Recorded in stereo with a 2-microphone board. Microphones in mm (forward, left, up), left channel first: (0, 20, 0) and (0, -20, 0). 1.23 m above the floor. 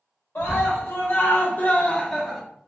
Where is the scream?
80° left, 1.2 m; by 2.4 s 10° left (ahead or behind), 1.0 m.